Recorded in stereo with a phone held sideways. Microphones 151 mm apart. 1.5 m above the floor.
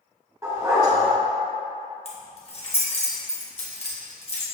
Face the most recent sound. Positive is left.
turn(degrees=40)  # may be behind; listen again after turning